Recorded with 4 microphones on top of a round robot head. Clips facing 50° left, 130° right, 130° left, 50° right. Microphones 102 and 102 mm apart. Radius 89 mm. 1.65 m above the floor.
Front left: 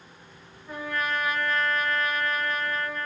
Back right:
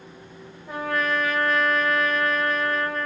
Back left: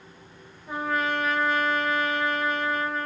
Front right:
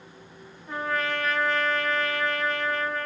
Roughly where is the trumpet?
Behind right.